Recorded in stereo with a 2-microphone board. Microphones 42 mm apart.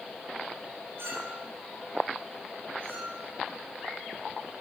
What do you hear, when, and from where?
1.0 s a clink: 75° right (ahead or behind), 3 m